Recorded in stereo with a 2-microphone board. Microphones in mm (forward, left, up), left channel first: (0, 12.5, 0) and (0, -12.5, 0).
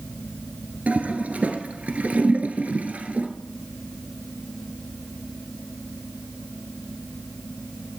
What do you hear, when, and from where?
0.9 s a toilet flushing: 80° right, 1.5 m